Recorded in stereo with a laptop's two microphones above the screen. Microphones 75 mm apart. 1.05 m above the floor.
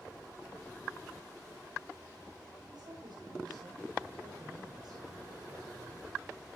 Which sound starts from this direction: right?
A woman speaking, at 2.7 s.